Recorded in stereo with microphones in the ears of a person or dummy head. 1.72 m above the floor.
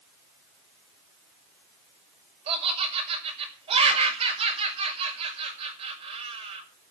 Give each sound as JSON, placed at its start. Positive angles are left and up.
{"t": 2.5, "sound": "laughter", "side_deg": -35, "distance_m": 6.0}